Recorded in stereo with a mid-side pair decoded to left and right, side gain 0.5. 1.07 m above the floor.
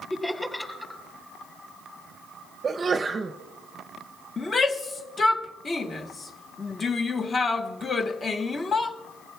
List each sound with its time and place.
0.1 s laughter: 10° left, 5.5 m
2.6 s a sneeze: 35° right, 0.6 m
4.4 s a shout: 30° left, 1.2 m